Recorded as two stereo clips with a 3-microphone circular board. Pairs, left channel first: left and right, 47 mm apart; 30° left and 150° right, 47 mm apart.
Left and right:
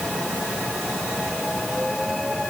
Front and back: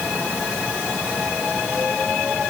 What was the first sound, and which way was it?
Only background noise.